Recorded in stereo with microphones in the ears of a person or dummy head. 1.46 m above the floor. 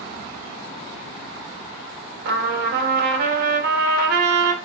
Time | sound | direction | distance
2.2 | a trumpet | 60° right (ahead or behind) | 0.8 m